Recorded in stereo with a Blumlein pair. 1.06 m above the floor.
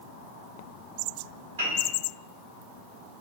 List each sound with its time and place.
1.6 s a piano: 65° right, 1.3 m